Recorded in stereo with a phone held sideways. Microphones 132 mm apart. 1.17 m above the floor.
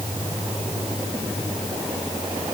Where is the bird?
No bird in this recording.